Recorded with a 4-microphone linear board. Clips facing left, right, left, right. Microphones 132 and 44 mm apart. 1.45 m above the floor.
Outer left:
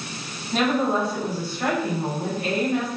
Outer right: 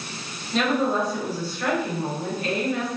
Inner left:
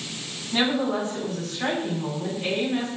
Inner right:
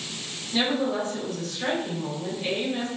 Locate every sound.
0.5 s a woman speaking: 55° left (ahead or behind), 1.8 m